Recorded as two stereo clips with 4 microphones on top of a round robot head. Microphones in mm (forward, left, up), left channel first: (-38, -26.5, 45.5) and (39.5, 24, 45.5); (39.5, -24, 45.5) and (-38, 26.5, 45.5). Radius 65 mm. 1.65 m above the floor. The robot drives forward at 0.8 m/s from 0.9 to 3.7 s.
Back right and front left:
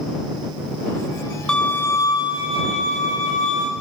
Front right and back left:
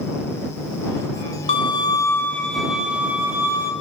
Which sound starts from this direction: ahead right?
A violin, at 1.5 s.